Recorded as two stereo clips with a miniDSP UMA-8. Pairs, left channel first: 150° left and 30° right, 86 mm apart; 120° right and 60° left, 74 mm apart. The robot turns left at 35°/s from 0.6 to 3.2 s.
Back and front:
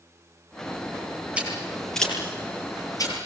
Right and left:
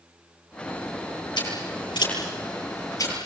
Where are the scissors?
105° right, 9.5 m; by 3.1 s 170° right, 9.5 m.